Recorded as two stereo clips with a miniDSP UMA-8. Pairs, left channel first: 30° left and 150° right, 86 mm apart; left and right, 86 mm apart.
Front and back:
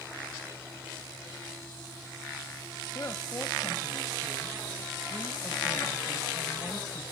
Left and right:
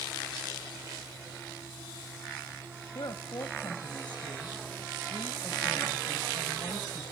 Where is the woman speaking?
75° left, 1.6 m.